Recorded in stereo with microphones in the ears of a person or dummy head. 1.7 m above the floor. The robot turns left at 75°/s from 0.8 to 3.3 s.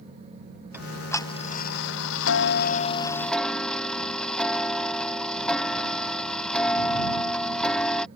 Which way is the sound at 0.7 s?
170° right.